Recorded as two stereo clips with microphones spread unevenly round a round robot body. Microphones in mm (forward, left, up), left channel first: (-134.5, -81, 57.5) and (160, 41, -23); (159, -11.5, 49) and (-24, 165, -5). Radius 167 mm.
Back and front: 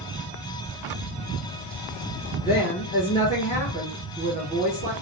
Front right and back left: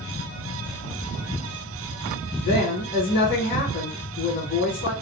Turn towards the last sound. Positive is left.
turn(degrees=-80)